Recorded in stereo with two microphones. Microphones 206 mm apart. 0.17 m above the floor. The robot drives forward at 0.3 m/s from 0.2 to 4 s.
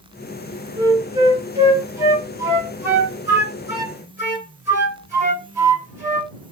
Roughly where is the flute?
Centre.